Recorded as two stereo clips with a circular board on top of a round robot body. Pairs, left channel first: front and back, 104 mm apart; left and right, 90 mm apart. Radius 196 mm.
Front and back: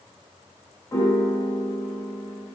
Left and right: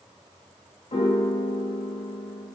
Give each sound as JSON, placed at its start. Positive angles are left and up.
{"t": 0.9, "sound": "a piano", "azimuth_deg": 65, "distance_m": 1.8}